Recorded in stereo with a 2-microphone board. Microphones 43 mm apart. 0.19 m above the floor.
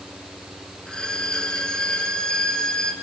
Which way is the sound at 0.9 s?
20° left (ahead or behind).